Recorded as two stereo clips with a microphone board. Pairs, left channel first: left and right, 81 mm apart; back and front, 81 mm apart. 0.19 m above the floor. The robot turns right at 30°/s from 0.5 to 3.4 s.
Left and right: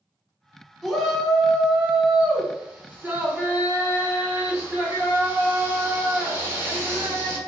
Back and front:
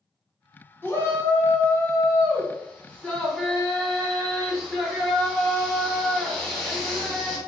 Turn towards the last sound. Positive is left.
turn(degrees=-110)